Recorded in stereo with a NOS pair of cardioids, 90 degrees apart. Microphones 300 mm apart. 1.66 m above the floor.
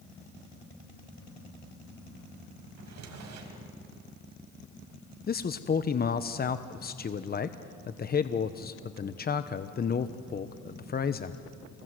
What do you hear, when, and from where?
2.8 s a drawer: 65° right, 4 m
5.3 s a man speaking: 30° left, 1.0 m